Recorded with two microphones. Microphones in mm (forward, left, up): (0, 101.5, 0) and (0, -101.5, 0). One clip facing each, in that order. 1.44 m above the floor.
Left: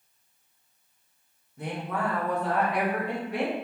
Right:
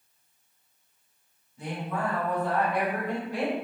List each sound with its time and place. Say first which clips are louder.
1.6 s a woman speaking: left 1 dB; 55° left (ahead or behind), 1.0 m